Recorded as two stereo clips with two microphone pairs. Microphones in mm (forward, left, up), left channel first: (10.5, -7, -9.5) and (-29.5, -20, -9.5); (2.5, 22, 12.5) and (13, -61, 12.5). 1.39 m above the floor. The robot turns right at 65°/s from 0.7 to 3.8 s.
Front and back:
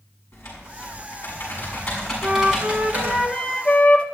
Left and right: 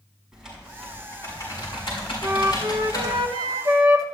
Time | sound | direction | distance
0.3 | typing on a keyboard | straight ahead | 7 m
2.2 | a flute | 145° right | 1.6 m